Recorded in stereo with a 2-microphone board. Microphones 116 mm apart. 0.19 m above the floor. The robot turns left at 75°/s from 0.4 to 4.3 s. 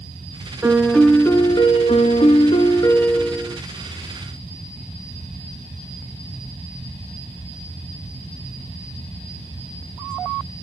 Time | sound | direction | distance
0.6 | a piano | 160° right | 0.8 m